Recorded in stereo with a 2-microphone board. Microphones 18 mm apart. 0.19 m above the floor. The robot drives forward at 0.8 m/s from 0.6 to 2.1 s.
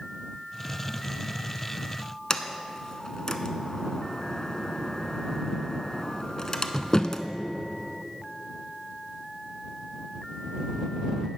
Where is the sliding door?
40° left (ahead or behind), 0.5 m.